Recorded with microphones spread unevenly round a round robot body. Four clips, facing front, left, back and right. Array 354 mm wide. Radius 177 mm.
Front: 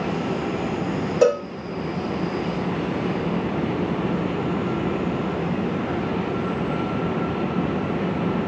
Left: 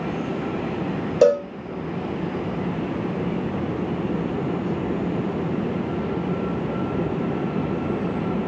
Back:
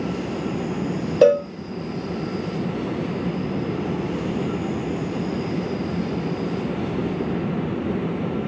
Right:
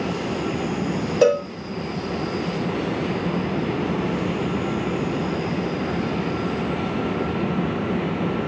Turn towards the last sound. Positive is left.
turn(degrees=155)